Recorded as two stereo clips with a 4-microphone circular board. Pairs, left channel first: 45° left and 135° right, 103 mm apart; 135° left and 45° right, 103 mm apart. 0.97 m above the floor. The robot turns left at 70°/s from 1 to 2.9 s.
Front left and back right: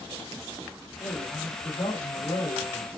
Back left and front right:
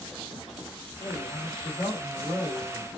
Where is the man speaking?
155° left, 2.5 m; by 2.9 s 25° left, 2.5 m.